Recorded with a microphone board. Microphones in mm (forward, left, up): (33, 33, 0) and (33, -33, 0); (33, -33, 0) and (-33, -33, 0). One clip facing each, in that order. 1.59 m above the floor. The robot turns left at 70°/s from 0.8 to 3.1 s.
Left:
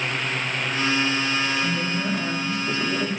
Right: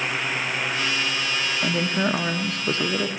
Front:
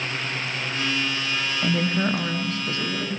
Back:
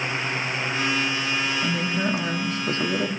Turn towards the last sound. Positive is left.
turn(degrees=-150)